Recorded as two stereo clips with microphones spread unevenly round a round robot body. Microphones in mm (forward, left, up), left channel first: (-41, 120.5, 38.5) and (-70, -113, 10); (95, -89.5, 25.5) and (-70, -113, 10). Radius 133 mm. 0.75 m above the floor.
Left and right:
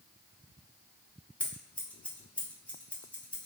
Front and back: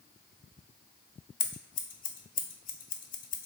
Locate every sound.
1.4 s scissors: 5° right, 0.5 m